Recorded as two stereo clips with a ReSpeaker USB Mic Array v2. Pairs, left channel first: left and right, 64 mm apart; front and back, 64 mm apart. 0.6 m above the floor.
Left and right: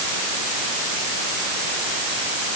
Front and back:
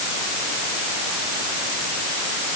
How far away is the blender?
I don't hear a blender.